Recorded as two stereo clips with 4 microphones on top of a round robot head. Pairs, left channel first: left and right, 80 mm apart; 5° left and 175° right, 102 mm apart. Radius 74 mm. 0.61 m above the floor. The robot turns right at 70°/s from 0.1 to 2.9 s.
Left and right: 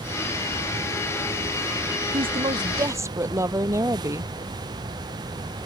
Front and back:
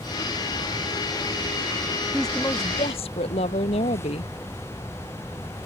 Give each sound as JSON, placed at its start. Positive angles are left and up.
{"t": 2.1, "sound": "a woman speaking", "azimuth_deg": -90}